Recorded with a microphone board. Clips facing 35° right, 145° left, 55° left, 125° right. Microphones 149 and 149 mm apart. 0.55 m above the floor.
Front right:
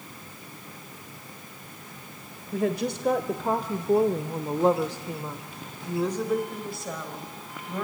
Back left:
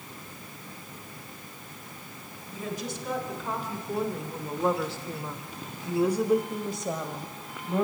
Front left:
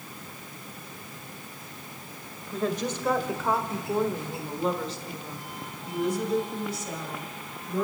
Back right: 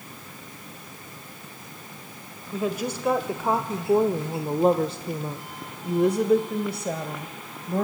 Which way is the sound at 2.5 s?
40° right.